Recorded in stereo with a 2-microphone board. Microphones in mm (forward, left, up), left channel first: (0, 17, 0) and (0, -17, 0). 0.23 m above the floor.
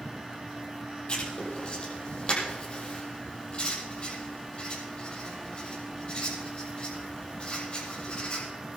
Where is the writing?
35° left (ahead or behind), 8.5 m.